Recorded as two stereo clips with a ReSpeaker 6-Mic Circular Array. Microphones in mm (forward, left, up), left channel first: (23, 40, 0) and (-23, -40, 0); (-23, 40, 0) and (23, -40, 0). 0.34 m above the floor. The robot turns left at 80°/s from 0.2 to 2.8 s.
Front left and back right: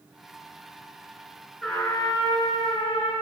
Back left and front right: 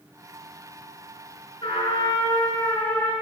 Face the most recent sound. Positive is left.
turn(degrees=50)